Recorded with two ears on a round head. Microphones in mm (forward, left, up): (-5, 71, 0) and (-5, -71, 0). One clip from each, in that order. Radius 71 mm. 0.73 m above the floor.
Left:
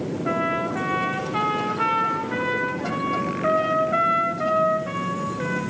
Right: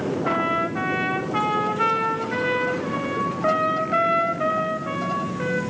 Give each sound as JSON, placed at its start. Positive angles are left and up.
{"t": 0.2, "sound": "a trumpet", "side_deg": -5, "distance_m": 3.0}